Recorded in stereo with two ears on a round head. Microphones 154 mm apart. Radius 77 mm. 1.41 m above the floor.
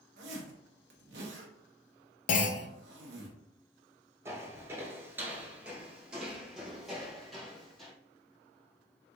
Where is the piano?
No piano in this recording.